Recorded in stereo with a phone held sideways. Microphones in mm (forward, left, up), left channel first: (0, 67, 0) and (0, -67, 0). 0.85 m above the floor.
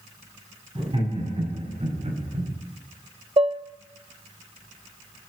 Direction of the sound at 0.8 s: 40° right (ahead or behind).